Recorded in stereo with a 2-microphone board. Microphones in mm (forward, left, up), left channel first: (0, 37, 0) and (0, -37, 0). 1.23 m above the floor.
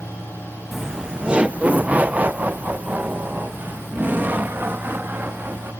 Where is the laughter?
Centre (ahead or behind); by 5.7 s 25° right (ahead or behind).